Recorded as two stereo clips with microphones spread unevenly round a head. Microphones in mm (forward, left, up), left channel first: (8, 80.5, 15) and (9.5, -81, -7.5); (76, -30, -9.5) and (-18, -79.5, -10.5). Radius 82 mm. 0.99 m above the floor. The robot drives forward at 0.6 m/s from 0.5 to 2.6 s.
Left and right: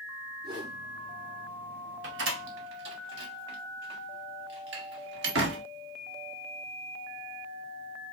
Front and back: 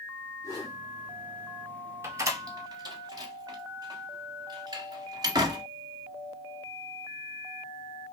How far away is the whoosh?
About 2.5 m.